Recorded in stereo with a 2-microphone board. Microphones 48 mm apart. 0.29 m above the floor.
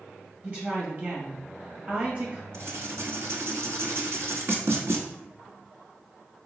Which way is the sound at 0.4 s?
35° right (ahead or behind).